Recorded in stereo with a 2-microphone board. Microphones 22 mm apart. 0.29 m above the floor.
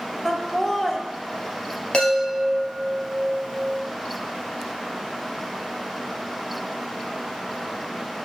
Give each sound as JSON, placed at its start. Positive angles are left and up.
{"t": 0.2, "sound": "laughter", "side_deg": 15, "distance_m": 1.0}
{"t": 1.9, "sound": "a chime", "side_deg": 50, "distance_m": 2.0}